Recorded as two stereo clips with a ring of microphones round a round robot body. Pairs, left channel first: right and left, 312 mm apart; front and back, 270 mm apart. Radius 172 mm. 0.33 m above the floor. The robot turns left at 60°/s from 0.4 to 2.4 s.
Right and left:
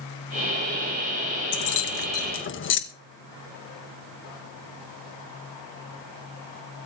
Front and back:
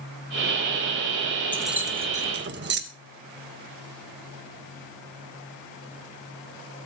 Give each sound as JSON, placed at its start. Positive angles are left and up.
{"t": 1.5, "sound": "keys jangling", "azimuth_deg": -85, "distance_m": 1.6}